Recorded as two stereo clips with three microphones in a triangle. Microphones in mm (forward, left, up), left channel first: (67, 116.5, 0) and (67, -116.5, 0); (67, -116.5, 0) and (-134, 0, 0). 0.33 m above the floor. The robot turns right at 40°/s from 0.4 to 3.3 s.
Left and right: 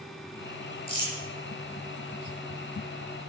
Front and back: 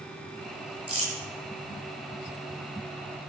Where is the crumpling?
155° left, 7 m; by 1.1 s 165° left, 7 m.